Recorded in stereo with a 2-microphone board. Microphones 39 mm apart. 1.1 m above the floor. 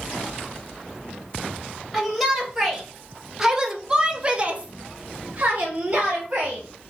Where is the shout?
Centre (ahead or behind), 1.5 m; by 6.9 s 25° right (ahead or behind), 1.3 m.